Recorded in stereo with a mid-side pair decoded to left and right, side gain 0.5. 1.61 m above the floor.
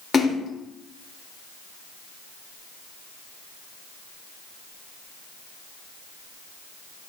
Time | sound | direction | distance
0.1 | a splash | 35° left | 0.8 m